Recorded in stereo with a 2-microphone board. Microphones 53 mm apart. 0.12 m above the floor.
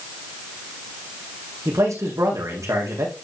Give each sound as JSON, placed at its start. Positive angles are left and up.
{"t": 1.6, "sound": "a man speaking", "side_deg": -75, "distance_m": 6.5}